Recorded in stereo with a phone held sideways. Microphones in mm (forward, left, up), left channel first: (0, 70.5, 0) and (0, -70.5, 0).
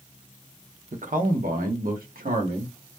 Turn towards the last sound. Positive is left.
turn(degrees=-85)